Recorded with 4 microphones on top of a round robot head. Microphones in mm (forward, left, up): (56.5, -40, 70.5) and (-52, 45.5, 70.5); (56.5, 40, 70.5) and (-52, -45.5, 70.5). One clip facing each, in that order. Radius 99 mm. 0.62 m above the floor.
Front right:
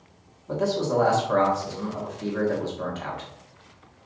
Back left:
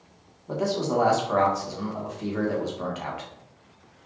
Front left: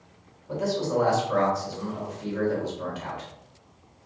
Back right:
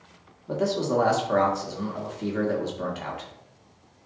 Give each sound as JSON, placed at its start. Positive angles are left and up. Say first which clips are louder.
{"t": 0.5, "sound": "a man speaking", "louder": "front right 1 dB, back right 2 dB", "azimuth_deg": -145, "distance_m": 1.7}